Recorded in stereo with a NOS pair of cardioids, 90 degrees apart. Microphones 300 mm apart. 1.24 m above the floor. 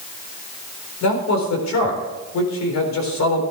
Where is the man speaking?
65° left, 4 m.